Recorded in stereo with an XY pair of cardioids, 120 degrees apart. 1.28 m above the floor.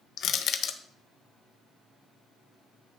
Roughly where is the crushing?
Ahead left.